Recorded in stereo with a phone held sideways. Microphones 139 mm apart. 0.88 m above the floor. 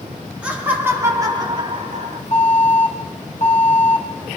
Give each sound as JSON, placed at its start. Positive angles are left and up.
{"t": 0.4, "sound": "laughter", "side_deg": -10, "distance_m": 2.5}
{"t": 2.3, "sound": "an alarm", "side_deg": 55, "distance_m": 3.5}